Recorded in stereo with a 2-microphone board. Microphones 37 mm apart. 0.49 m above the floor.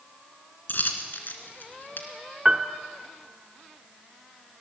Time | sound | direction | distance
0.7 | a dropped coin | 60° left (ahead or behind) | 2 m
2.5 | a piano | 20° right (ahead or behind) | 1.0 m